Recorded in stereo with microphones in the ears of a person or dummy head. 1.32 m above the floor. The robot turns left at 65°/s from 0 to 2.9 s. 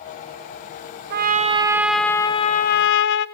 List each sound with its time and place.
1.1 s a trumpet: 125° right, 0.7 m; by 3.3 s 120° left, 0.7 m